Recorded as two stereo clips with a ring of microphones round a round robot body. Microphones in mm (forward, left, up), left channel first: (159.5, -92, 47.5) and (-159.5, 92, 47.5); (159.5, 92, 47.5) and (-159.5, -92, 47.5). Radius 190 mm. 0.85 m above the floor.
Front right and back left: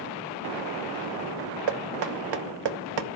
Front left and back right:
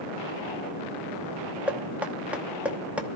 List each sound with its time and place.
1.7 s knocking: 125° left, 1.2 m